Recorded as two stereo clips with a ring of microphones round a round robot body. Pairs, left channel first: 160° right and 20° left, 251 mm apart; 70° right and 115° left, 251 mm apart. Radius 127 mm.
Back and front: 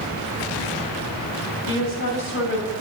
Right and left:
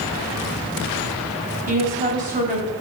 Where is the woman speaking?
170° left, 2.5 m.